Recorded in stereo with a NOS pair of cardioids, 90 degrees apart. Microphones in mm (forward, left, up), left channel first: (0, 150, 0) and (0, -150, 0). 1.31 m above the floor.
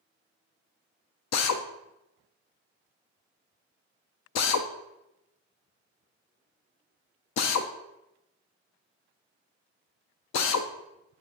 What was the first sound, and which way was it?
A drill, 65° left.